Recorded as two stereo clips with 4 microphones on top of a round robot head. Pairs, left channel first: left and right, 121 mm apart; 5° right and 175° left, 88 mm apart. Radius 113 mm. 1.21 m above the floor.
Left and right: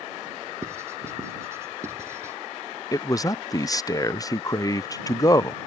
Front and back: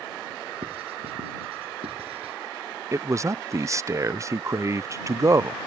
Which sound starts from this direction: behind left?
A man speaking, at 2.9 s.